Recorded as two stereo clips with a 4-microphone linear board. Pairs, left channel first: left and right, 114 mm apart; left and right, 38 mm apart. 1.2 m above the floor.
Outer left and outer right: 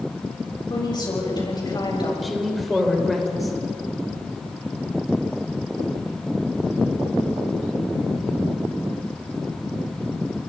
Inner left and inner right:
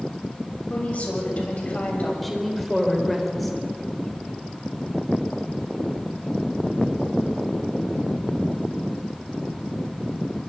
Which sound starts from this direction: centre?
A woman speaking, at 2.2 s.